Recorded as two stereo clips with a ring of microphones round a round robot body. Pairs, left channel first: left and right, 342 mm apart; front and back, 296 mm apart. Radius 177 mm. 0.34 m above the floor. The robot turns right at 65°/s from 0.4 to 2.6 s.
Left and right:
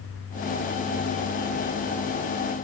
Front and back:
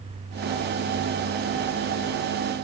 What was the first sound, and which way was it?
Only background noise.